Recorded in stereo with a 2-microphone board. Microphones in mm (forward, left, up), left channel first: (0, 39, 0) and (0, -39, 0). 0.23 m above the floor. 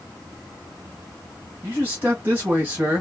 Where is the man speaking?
25° right (ahead or behind), 2 m.